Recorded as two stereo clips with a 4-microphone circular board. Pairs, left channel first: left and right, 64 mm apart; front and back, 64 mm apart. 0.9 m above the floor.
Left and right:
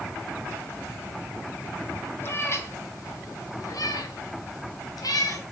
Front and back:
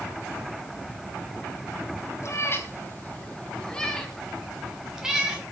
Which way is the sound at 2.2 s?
40° left.